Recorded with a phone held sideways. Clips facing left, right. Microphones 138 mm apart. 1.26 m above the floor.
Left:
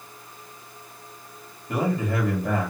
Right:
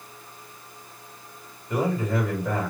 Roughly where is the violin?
No violin in this recording.